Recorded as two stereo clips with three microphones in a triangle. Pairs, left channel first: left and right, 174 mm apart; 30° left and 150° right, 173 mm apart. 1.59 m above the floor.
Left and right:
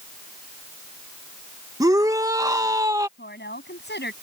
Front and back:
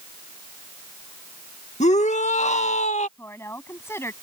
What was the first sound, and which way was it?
A shout, 20° right.